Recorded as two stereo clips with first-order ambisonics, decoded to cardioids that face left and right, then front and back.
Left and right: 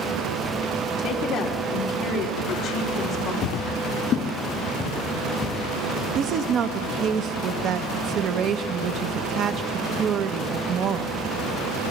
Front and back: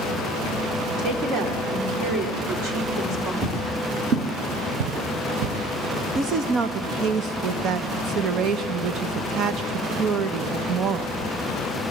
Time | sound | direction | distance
1.0 | a woman speaking | 145° left | 3.5 m
3.4 | footsteps | 115° left | 1.7 m
6.2 | a woman speaking | 135° right | 0.8 m